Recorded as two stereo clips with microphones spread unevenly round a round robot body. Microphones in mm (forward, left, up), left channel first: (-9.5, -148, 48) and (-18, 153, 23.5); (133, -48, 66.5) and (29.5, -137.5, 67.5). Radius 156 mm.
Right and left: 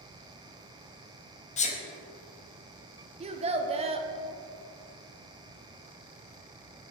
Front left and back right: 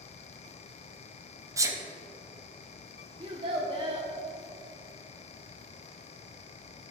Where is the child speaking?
160° left, 0.5 m.